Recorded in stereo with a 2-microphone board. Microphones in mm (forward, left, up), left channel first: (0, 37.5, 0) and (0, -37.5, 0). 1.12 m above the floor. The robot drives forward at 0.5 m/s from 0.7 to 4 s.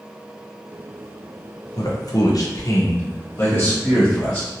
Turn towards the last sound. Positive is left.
turn(degrees=25)  # may be behind; listen again after turning